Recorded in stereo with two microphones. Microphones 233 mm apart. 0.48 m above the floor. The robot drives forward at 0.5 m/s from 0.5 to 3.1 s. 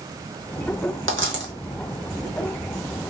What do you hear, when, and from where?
1.1 s a dropped coin: 60° right (ahead or behind), 0.8 m; by 1.5 s 50° right (ahead or behind), 1.0 m